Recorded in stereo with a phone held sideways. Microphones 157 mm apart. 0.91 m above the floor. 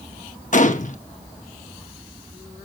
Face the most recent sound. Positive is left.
turn(degrees=50)  # may be behind; listen again after turning